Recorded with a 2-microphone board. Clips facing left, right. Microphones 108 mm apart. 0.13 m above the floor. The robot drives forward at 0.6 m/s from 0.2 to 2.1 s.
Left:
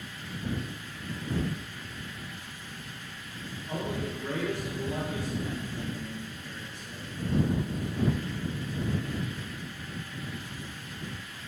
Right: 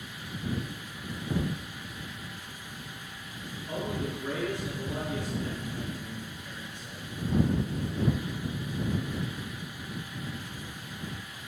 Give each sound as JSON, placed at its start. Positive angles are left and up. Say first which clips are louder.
{"t": 3.7, "sound": "a man speaking", "louder": "even", "side_deg": -20, "distance_m": 1.9}